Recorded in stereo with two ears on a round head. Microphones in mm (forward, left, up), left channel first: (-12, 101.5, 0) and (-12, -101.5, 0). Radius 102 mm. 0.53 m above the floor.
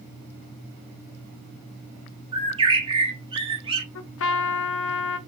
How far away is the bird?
About 1.2 m.